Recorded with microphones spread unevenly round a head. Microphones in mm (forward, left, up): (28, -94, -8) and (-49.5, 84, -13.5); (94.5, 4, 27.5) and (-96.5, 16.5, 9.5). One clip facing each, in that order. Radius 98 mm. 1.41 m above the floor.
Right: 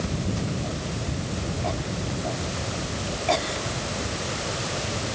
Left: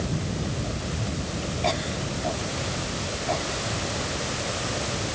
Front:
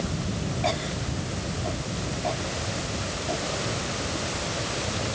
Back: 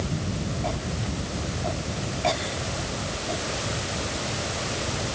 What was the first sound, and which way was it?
Only background noise.